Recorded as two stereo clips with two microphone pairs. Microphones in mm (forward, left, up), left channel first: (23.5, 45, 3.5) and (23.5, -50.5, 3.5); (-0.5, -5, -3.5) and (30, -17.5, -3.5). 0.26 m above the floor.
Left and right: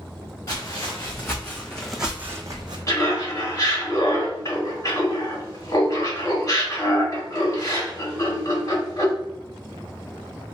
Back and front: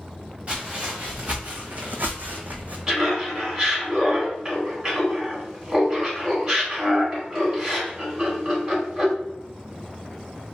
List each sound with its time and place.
0.5 s footsteps: 35° left, 1.4 m; by 2.8 s 60° right, 0.6 m
2.9 s laughter: 45° left, 1.8 m